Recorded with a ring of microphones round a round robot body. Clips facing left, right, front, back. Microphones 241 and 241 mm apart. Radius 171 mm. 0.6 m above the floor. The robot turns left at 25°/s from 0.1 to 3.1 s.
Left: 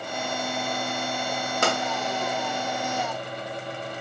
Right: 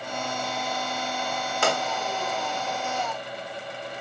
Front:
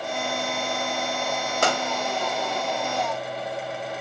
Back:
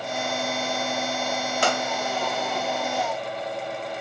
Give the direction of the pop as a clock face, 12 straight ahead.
10 o'clock.